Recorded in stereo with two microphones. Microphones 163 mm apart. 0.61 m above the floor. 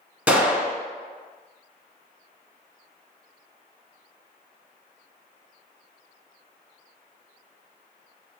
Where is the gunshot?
10° right (ahead or behind), 0.9 m.